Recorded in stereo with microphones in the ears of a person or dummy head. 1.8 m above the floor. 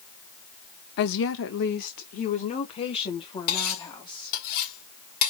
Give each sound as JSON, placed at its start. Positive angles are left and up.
{"t": 1.0, "sound": "a woman speaking", "side_deg": 55, "distance_m": 0.7}
{"t": 3.5, "sound": "cutlery clinking", "side_deg": 50, "distance_m": 2.0}